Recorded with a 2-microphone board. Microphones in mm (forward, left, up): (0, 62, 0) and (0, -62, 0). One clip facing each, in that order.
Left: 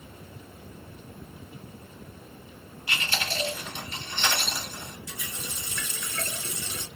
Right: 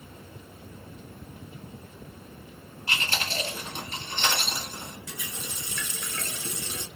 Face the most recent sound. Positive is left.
turn(degrees=-65)  # may be behind; listen again after turning